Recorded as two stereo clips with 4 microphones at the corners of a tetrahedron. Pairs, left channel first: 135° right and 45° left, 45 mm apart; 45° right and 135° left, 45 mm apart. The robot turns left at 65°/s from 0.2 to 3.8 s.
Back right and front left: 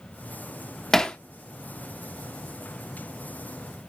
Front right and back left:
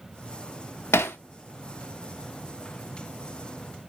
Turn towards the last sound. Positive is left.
turn(degrees=120)